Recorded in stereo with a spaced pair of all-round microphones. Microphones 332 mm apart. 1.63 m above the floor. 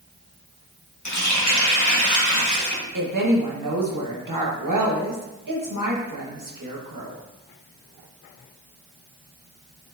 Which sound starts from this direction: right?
A woman speaking, at 2.9 s.